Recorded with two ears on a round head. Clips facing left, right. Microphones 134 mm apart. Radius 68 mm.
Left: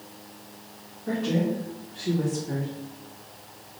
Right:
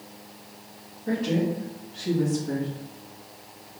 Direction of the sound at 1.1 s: 10° right (ahead or behind).